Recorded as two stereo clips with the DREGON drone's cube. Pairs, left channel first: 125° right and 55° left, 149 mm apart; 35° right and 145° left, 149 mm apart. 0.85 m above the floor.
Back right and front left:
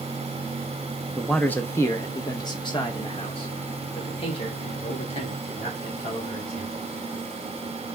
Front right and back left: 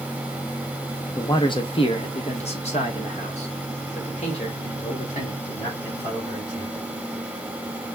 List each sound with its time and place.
1.2 s a man speaking: 35° right, 0.5 m; by 6.9 s 75° right, 3 m